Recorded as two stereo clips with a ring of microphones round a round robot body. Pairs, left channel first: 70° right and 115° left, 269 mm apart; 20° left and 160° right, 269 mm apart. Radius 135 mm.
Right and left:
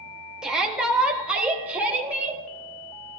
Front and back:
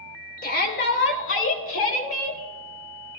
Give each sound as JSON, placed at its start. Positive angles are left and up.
{"t": 0.4, "sound": "a shout", "azimuth_deg": 30, "distance_m": 1.5}